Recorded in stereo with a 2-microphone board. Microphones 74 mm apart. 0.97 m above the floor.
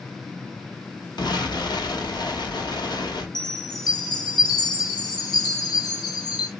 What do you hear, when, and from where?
1.2 s an explosion: 75° left (ahead or behind), 1.1 m
3.4 s a chime: 70° left (ahead or behind), 1.1 m